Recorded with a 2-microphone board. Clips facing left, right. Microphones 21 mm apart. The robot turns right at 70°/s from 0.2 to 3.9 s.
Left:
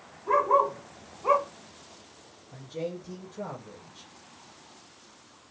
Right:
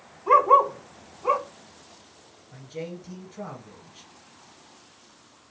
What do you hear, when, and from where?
0.3 s a dog barking: 60° right (ahead or behind), 0.7 m; by 1.5 s centre (ahead or behind), 0.7 m
2.5 s a man speaking: 155° right, 1.5 m; by 4.1 s 60° right, 1.5 m